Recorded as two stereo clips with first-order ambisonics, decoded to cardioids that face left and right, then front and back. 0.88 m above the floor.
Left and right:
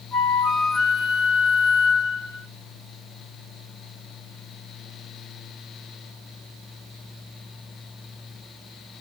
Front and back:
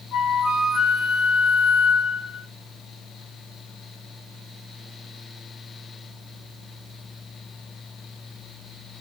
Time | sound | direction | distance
0.1 | a flute | 35° left | 0.7 m